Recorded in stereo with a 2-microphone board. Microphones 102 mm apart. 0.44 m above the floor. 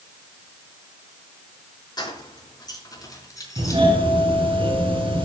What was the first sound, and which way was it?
Keys jangling, 45° left (ahead or behind).